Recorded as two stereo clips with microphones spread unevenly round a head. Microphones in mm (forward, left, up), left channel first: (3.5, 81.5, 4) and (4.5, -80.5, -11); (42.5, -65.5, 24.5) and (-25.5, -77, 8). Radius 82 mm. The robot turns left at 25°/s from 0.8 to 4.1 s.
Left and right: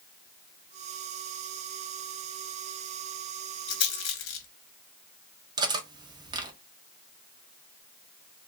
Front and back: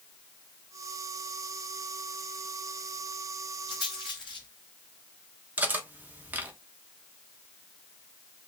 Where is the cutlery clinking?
115° right, 0.6 m.